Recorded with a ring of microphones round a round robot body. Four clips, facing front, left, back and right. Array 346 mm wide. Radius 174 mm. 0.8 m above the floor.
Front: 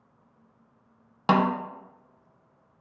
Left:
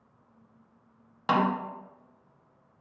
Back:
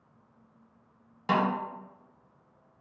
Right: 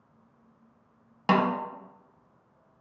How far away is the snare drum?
About 0.5 m.